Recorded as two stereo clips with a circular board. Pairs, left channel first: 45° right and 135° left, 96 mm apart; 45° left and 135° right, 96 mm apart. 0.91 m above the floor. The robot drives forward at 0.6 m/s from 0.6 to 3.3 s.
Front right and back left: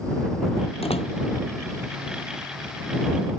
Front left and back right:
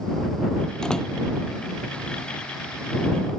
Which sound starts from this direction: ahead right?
A door slam, at 0.8 s.